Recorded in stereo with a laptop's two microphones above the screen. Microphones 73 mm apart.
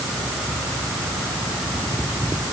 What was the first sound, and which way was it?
Only background noise.